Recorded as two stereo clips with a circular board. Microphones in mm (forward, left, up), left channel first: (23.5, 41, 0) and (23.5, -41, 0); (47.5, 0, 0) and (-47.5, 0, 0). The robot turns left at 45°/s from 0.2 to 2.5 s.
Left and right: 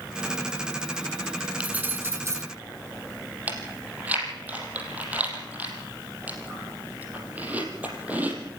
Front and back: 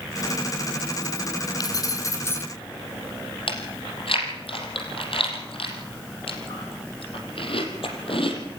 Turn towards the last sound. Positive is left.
turn(degrees=-20)